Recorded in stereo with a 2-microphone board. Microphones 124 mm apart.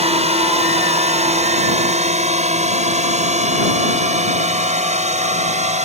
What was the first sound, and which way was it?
A drone, 60° right (ahead or behind).